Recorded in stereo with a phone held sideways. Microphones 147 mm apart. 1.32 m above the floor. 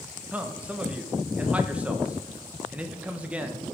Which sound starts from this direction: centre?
A man speaking, at 0.3 s.